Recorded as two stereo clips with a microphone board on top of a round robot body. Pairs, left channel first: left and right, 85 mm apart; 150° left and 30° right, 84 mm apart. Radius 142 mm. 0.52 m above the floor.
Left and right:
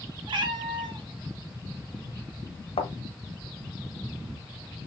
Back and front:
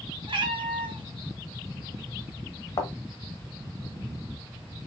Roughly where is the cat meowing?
Ahead right.